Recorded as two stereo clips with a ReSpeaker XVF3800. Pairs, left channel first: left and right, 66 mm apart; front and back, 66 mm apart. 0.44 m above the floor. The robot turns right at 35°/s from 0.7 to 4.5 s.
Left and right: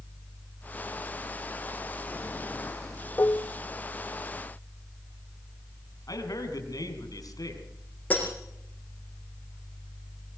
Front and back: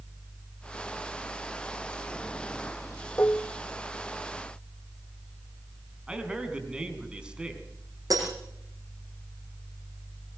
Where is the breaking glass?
155° left, 9 m.